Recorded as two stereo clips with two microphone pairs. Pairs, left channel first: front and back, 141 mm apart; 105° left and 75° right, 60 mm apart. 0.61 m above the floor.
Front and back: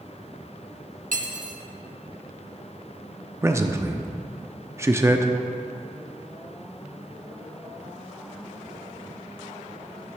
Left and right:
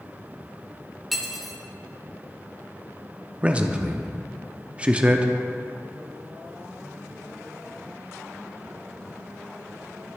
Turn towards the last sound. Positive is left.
turn(degrees=-125)